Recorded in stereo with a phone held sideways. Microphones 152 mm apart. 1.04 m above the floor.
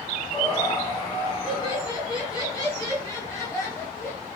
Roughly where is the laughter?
Left.